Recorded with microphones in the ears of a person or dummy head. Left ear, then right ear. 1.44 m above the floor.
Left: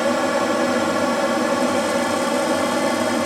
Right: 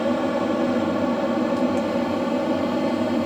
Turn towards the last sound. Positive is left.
turn(degrees=60)  # may be behind; listen again after turning